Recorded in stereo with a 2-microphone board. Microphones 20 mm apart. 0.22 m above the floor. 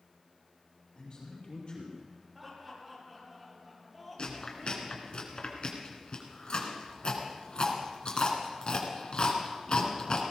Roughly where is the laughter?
Centre.